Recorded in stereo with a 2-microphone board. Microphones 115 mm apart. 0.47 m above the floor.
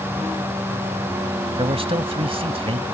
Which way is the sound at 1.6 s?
55° right (ahead or behind).